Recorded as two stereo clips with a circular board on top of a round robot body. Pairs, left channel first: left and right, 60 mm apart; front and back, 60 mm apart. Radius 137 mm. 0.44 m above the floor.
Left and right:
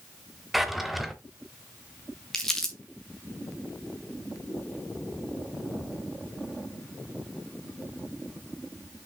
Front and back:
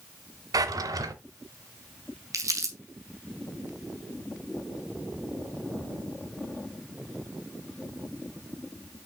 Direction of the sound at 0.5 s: Straight behind.